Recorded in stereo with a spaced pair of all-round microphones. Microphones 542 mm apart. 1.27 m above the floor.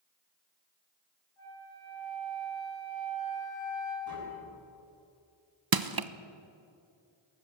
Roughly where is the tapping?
Right.